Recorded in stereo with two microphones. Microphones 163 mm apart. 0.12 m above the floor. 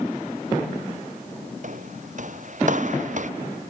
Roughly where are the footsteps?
Right.